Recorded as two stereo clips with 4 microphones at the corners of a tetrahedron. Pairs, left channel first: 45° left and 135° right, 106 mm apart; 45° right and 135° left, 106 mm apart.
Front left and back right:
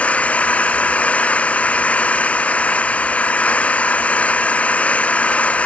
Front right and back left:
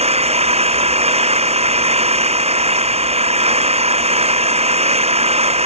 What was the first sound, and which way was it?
An engine running, 125° left.